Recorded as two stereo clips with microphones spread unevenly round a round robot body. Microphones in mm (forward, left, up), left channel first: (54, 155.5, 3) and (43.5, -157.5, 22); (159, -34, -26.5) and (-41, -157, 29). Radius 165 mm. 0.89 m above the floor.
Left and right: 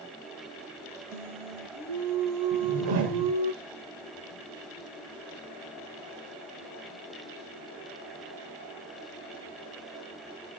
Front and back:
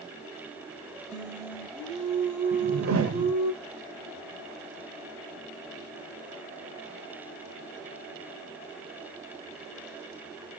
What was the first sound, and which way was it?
Singing, 85° right.